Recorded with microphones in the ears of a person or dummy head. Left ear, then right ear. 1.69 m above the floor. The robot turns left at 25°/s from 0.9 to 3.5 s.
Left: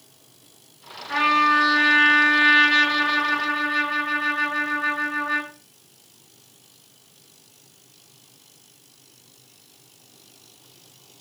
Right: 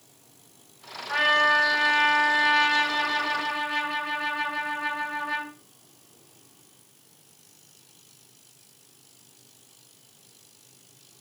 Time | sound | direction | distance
1.1 | a trumpet | 35° right | 1.8 m